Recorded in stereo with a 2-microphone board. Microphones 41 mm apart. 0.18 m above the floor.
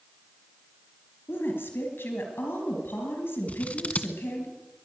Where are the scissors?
35° left (ahead or behind), 0.8 m.